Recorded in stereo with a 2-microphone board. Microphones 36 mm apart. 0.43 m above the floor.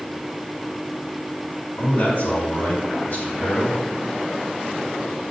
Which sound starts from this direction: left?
A man speaking, at 1.8 s.